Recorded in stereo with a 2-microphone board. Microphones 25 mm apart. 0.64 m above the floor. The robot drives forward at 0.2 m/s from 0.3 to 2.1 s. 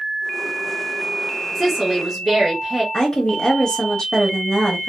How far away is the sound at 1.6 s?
About 1.0 m.